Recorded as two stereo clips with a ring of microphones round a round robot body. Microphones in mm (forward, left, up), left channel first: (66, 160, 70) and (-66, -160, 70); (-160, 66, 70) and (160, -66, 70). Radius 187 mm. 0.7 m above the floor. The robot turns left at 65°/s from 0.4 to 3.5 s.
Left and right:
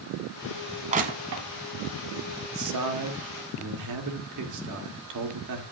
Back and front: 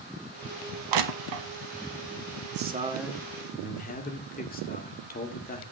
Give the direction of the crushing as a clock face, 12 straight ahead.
1 o'clock.